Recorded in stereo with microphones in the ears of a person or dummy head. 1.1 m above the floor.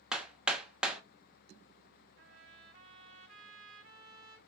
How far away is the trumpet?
About 1.2 m.